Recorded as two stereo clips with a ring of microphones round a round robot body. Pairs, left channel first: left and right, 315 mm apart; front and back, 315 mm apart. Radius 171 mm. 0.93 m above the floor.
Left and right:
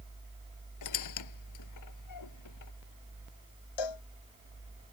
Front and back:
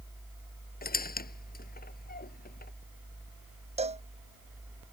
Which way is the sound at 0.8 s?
60° left.